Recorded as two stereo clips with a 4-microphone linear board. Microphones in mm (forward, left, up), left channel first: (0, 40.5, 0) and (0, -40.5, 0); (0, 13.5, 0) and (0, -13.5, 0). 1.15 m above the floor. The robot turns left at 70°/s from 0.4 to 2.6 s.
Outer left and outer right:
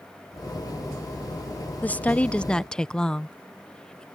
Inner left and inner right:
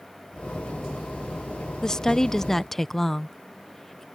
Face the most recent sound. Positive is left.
turn(degrees=10)  # may be behind; listen again after turning